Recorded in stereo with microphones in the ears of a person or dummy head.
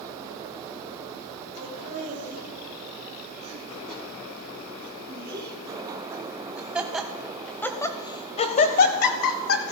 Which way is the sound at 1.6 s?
40° right (ahead or behind).